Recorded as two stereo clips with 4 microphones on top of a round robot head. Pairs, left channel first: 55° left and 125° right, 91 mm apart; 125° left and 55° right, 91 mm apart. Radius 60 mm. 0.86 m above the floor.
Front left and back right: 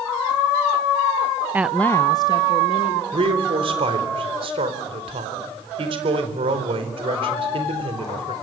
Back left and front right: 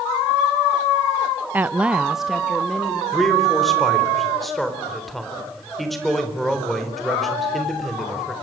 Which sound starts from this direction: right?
A woman speaking, at 1.5 s.